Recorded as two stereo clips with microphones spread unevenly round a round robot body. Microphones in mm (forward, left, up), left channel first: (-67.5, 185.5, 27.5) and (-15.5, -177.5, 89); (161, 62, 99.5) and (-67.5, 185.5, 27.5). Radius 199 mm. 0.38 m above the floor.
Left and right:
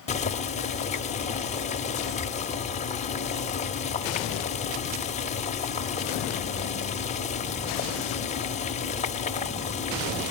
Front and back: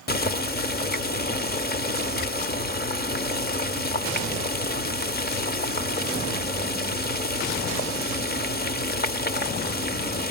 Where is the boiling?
35° left, 1.2 m.